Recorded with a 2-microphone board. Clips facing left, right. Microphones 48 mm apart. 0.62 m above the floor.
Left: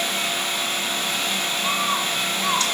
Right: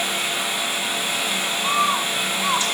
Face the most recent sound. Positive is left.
turn(degrees=-15)  # may be behind; listen again after turning